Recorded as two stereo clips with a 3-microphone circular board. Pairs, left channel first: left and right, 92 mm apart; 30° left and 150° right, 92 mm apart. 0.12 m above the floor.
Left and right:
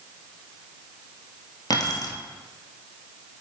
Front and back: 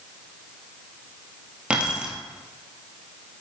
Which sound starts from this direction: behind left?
Keys jangling, at 1.7 s.